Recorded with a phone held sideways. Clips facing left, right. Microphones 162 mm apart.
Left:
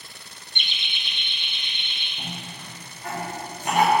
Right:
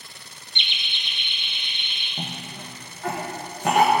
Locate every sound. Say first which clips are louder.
0.6 s laughter: even; 50° left (ahead or behind), 0.8 m; by 2.1 s 35° right (ahead or behind), 2 m
2.2 s a cough: right 3 dB; 75° right (ahead or behind), 1.2 m